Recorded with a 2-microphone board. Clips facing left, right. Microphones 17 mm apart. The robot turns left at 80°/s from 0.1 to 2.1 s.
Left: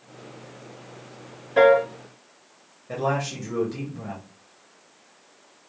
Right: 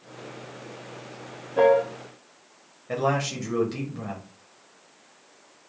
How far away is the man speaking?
About 1.2 m.